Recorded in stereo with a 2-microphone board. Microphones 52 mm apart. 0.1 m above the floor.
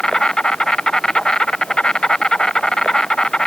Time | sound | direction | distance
0.0 | an insect | 15° left (ahead or behind) | ?